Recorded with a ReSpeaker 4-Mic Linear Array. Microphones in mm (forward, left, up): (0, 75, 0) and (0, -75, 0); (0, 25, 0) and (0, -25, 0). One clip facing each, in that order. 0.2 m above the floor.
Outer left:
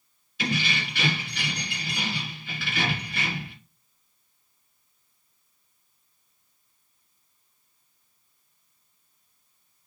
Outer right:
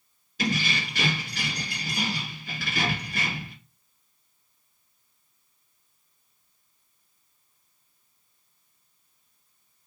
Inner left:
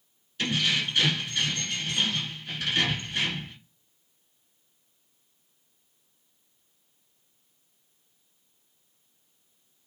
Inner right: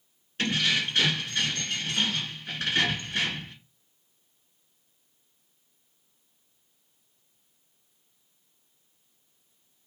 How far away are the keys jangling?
About 1.6 m.